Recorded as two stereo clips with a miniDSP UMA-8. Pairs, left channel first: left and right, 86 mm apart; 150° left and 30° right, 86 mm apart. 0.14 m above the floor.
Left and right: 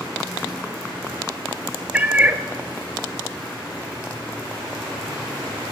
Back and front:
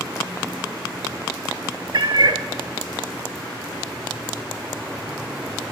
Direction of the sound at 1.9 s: 20° right.